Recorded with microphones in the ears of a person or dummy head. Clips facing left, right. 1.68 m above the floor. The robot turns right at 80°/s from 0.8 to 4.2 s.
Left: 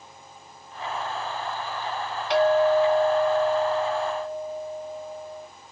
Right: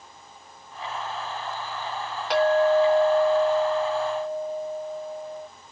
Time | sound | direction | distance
2.3 | a clink | 90° right | 1.4 m